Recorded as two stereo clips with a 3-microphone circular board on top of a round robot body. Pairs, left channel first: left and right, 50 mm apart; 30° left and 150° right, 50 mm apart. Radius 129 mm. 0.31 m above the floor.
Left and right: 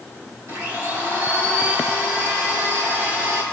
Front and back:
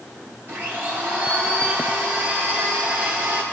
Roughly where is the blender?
Right.